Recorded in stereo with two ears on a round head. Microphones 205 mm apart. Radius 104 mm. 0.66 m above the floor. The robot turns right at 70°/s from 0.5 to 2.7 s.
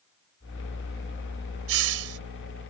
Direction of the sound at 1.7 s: 105° right.